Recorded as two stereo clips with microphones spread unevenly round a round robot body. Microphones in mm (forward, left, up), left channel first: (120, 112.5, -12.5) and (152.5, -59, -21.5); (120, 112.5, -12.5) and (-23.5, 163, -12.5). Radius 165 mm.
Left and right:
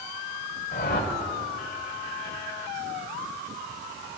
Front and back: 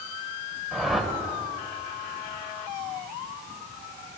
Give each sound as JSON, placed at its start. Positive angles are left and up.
{"t": 0.7, "sound": "a whoosh", "azimuth_deg": 70, "distance_m": 1.9}